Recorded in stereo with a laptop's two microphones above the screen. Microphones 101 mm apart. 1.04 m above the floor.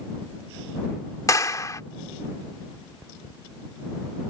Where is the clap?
35° left (ahead or behind).